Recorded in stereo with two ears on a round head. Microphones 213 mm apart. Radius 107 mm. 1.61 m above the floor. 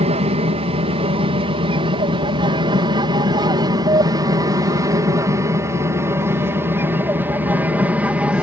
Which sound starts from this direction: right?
An aircraft, at 0.0 s.